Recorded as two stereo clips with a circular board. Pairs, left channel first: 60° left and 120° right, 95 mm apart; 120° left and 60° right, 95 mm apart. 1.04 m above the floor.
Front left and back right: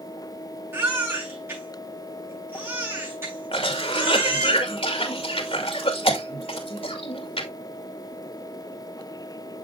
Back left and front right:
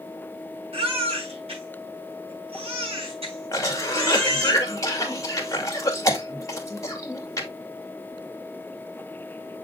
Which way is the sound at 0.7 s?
55° right.